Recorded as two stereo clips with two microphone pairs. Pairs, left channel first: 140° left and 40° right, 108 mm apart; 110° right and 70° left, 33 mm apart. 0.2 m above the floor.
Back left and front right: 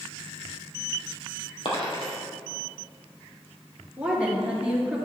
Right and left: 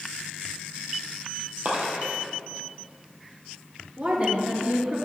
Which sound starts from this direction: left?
A dropped coin, at 1.6 s.